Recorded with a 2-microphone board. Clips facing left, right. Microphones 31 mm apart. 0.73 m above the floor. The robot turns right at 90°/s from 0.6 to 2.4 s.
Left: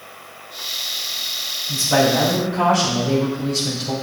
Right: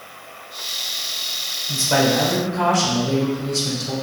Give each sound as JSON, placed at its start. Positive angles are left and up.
{"t": 1.7, "sound": "a man speaking", "azimuth_deg": -50, "distance_m": 3.0}